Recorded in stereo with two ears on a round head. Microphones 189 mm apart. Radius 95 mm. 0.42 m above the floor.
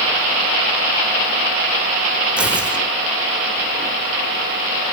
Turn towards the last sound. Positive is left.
turn(degrees=-5)  # may be behind; listen again after turning